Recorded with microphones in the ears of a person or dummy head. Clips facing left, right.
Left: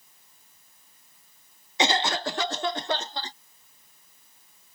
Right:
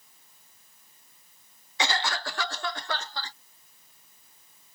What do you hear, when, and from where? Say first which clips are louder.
1.8 s a cough: left 5 dB; 20° left (ahead or behind)